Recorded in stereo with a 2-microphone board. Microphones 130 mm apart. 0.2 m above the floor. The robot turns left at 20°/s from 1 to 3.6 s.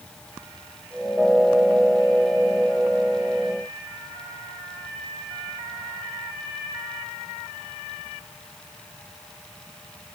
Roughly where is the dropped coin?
I don't hear a dropped coin.